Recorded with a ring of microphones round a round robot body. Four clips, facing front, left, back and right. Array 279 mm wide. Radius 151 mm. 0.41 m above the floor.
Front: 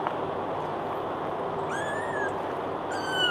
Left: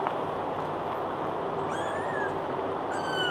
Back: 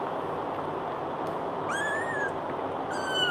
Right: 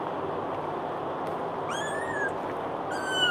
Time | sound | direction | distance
1.7 | a cat meowing | 125° right | 0.6 m